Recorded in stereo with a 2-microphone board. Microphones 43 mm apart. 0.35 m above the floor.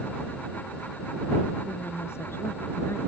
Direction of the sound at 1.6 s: 75° left (ahead or behind).